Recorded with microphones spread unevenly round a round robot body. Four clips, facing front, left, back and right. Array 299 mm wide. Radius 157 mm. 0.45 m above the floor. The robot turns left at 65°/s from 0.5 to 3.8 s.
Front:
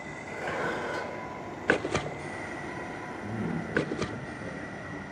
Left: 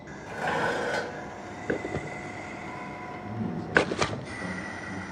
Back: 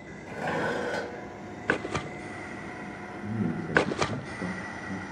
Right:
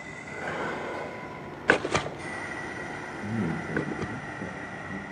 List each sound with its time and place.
0.3 s dishes clattering: 165° left, 2 m; by 1.2 s 120° left, 2 m
3.2 s a man speaking: 125° right, 7 m; by 5.1 s 165° right, 7 m